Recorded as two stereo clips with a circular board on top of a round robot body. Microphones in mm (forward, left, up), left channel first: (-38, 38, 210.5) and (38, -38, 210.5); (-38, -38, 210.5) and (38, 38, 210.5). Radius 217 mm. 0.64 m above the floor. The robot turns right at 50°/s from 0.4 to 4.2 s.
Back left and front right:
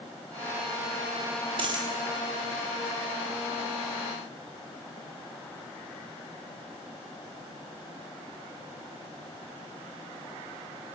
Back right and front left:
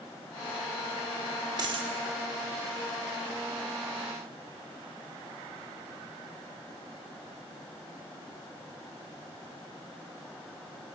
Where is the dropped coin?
5° right, 0.7 m; by 1.9 s 10° left, 0.7 m.